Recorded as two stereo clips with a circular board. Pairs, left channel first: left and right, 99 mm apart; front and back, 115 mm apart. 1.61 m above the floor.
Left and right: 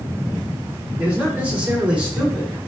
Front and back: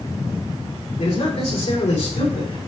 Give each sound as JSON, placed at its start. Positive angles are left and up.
{"t": 1.0, "sound": "a man speaking", "azimuth_deg": -15, "distance_m": 4.5}